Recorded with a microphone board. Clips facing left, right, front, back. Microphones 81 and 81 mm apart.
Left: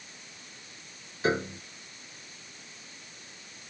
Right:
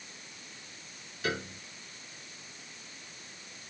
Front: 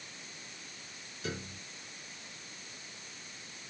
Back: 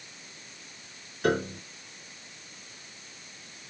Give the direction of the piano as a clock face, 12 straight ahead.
7 o'clock.